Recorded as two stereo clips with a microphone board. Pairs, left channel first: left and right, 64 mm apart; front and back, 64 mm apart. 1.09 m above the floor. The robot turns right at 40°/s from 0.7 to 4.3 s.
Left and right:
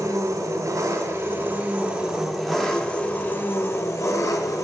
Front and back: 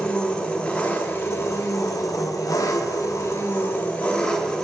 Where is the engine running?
75° right, 1.1 m; by 4.6 s 70° left, 1.1 m.